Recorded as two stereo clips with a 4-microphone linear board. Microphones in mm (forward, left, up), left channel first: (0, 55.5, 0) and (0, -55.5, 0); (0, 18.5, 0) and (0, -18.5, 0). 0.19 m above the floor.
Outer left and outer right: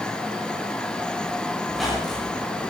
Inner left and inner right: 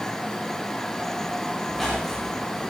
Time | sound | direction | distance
1.7 | a squeak | centre (ahead or behind) | 7.5 m